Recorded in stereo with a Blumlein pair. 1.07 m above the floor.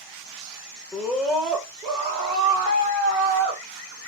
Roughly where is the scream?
Ahead.